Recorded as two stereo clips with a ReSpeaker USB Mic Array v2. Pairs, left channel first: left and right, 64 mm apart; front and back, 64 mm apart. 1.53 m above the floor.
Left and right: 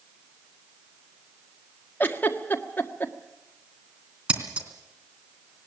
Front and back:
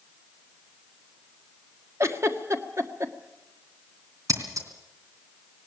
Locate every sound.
2.0 s a giggle: 145° left, 1.5 m
4.3 s scissors: 160° right, 3 m